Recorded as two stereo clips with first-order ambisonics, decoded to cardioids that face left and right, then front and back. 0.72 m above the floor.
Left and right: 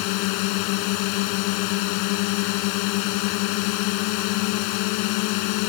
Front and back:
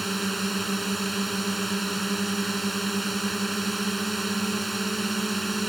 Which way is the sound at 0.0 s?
95° left.